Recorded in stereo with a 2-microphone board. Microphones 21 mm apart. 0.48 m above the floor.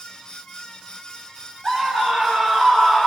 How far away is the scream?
About 3 m.